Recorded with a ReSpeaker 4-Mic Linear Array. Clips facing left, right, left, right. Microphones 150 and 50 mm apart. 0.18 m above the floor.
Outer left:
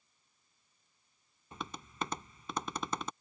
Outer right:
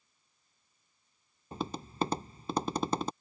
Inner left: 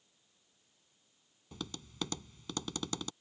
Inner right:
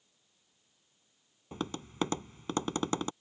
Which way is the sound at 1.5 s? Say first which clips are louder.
Outer right 7 dB, inner right 7 dB; 35° right (ahead or behind).